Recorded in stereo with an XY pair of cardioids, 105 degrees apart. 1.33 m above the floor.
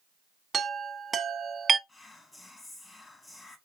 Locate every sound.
0.5 s a chime: 35° right, 0.6 m
1.9 s whispering: 30° left, 1.7 m